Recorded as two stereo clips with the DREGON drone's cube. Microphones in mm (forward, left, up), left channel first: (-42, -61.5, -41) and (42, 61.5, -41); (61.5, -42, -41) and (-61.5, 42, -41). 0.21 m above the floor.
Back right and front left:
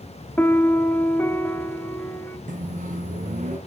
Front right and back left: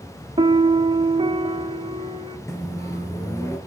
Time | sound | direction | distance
0.4 | a piano | 165° left | 0.5 m
2.5 | a microwave | 35° left | 2.5 m